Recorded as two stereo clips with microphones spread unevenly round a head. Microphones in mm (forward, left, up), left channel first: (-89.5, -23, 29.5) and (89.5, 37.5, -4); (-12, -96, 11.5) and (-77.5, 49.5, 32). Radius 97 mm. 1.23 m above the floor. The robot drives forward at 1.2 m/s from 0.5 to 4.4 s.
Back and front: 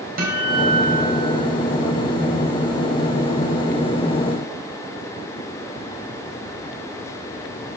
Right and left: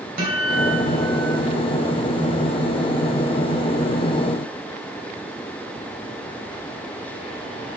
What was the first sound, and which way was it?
A guitar, 65° left.